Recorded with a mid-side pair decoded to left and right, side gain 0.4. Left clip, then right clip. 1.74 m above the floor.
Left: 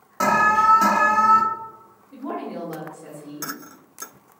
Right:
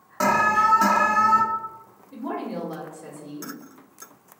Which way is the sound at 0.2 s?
Straight ahead.